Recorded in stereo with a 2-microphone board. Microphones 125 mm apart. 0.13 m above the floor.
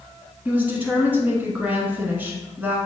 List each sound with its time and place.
0.5 s a woman speaking: 15° right (ahead or behind), 1.1 m